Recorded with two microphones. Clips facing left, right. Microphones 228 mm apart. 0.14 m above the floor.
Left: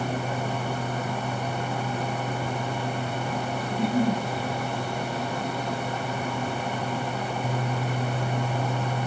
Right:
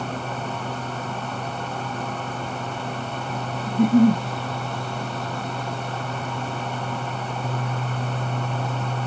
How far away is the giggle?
About 0.5 m.